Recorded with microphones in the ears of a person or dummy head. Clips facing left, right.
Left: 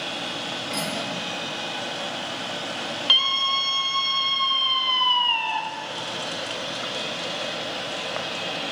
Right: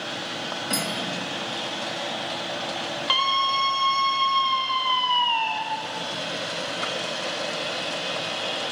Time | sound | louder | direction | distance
0.7 | cutlery clinking | even | 70° right (ahead or behind) | 2.5 m
3.1 | a scream | right 4 dB | 10° left (ahead or behind) | 0.8 m